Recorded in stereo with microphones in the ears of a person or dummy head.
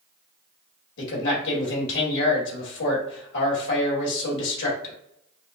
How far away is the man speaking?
About 2.0 m.